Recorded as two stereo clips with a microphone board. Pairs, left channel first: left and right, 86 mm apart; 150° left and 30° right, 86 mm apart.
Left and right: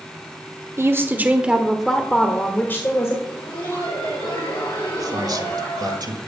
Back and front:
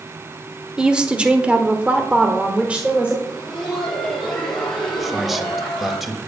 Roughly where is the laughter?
Ahead left.